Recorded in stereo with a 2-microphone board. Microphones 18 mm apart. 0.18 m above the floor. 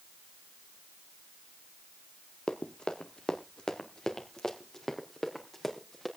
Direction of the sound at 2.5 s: 65° left (ahead or behind).